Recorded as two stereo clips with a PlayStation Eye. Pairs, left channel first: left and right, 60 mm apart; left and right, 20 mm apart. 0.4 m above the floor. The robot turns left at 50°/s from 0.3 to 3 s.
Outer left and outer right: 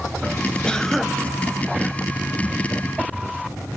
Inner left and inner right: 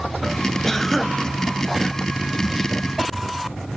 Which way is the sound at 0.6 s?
15° left (ahead or behind).